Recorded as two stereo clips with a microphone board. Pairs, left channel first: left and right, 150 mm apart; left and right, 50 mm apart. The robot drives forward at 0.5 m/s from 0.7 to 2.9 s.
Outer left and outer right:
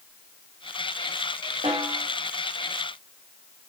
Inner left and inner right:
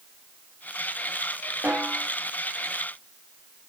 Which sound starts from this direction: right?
A snare drum, at 1.6 s.